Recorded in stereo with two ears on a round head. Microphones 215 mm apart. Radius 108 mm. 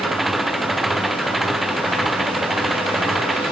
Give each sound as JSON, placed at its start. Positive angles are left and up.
{"t": 0.0, "sound": "an engine running", "side_deg": 0}